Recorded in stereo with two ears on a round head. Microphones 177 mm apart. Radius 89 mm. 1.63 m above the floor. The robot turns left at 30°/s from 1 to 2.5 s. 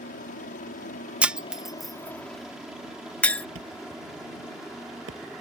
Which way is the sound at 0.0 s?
40° left (ahead or behind).